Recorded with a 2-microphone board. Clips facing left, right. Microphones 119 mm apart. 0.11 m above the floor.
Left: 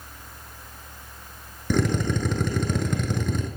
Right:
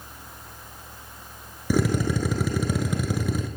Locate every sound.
1.7 s a drill: 5° right (ahead or behind), 1.0 m